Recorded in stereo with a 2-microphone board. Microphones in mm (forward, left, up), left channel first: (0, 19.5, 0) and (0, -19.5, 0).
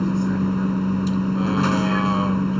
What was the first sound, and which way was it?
A vehicle, centre (ahead or behind).